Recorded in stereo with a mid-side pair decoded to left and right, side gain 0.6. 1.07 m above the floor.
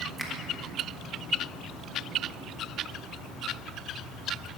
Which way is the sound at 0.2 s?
10° right.